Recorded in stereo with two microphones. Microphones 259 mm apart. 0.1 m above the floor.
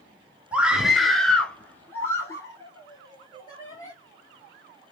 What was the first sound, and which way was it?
A scream, 5° right (ahead or behind).